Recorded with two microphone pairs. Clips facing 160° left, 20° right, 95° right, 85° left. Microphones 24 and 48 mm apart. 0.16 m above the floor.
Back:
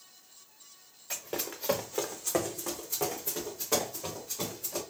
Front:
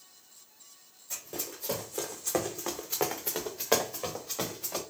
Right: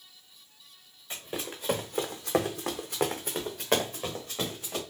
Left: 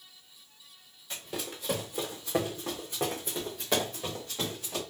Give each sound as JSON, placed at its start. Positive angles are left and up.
{"t": 1.1, "sound": "running footsteps", "azimuth_deg": -160, "distance_m": 1.3}